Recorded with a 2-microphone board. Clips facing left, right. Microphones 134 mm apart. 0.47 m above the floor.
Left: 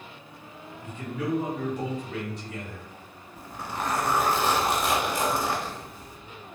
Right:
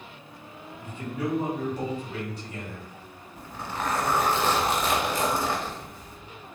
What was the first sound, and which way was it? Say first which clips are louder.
A man speaking: right 1 dB; 10° right (ahead or behind).